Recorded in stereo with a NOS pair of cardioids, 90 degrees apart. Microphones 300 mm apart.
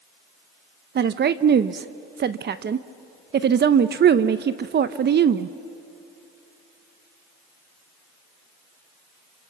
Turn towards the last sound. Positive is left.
turn(degrees=-35)